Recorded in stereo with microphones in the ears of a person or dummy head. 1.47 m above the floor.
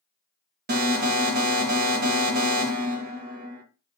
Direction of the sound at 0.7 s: 40° right (ahead or behind).